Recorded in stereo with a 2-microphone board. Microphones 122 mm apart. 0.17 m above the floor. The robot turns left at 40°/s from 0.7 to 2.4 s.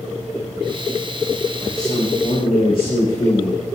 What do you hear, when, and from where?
1.6 s a man speaking: 175° left, 8 m; by 3.6 s 145° left, 8 m